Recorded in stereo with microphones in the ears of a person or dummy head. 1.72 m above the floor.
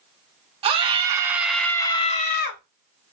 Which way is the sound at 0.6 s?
35° right (ahead or behind).